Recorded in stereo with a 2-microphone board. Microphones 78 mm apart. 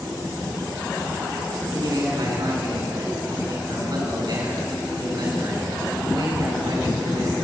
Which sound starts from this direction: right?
A man speaking, at 1.7 s.